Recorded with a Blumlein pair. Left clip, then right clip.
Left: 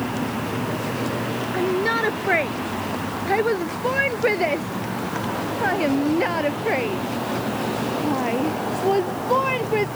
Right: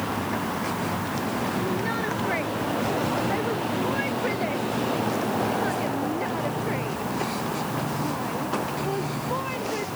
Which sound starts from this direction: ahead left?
A shout, at 1.5 s.